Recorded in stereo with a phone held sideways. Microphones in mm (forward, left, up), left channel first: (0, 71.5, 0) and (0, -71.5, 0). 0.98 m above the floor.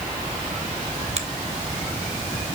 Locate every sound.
1.2 s a finger snap: 50° right (ahead or behind), 1.2 m